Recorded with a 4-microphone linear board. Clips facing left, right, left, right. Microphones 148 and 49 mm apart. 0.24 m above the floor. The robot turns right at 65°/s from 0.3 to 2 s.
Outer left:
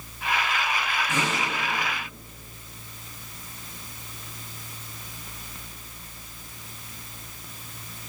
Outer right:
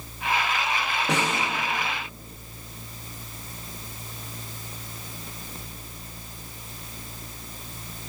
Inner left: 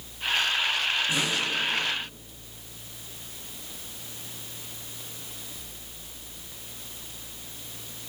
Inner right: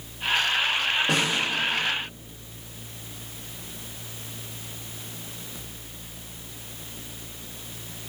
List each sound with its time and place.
1.1 s a snare drum: 85° right, 10 m; by 1.4 s 65° right (ahead or behind), 10 m